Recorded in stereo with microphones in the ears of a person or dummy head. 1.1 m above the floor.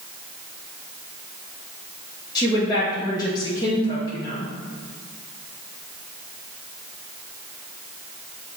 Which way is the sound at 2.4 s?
20° left (ahead or behind).